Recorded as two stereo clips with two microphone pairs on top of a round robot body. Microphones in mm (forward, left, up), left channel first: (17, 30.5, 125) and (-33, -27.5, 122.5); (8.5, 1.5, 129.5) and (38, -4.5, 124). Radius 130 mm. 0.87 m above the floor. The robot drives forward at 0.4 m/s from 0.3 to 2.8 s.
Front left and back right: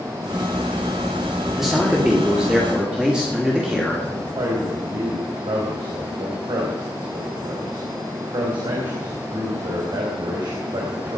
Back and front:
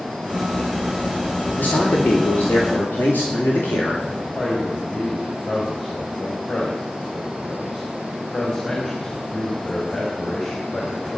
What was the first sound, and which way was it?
A man speaking, 145° left.